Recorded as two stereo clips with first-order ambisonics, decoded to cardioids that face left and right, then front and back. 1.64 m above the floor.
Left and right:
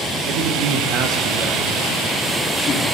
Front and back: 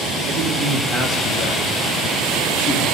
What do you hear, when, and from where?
0.3 s a man speaking: 110° right, 1.7 m; by 2.9 s 15° left, 2.5 m